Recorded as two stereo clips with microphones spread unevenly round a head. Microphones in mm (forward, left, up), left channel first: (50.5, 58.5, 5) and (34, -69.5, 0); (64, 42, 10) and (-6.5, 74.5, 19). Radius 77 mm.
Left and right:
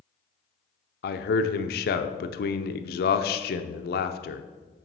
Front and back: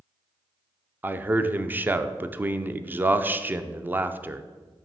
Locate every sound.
1.0 s a man speaking: 85° left, 0.5 m